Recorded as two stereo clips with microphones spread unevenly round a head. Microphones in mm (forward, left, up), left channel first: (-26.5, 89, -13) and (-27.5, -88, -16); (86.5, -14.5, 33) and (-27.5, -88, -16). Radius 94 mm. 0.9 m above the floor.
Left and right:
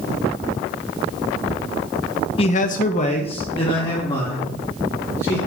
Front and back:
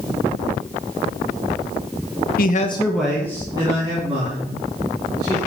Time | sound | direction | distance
2.4 | a man speaking | 35° left | 0.5 m